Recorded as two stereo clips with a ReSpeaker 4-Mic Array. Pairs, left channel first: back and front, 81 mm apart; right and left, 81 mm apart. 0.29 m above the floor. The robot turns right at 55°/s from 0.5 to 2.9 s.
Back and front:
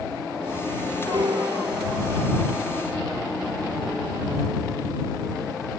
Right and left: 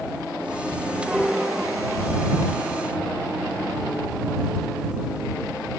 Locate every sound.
1.1 s a piano: 10° right; by 2.2 s 55° left